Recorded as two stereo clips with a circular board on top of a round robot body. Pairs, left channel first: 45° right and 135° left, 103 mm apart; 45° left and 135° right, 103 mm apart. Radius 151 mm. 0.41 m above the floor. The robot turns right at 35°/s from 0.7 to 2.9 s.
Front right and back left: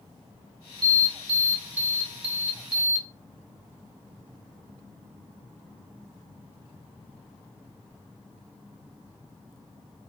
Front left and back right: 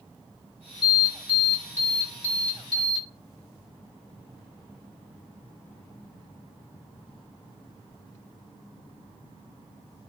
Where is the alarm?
145° left, 1.7 m; by 3.0 s 140° right, 1.7 m.